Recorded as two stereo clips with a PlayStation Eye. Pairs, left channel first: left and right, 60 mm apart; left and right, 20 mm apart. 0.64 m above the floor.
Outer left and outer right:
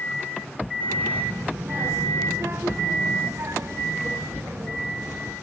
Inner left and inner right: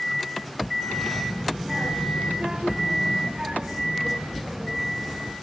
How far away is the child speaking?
About 4.5 m.